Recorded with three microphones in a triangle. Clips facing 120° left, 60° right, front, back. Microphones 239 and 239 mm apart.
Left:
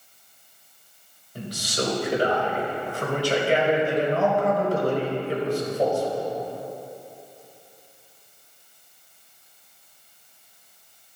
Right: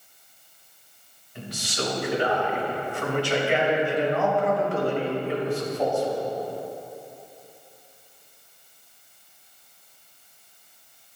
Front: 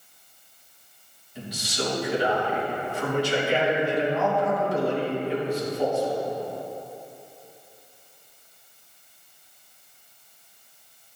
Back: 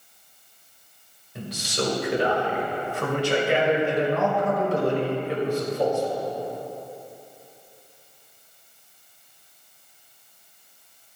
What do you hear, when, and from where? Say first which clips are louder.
1.4 s a man speaking: left 3 dB, back 3 dB; 165° left, 3 m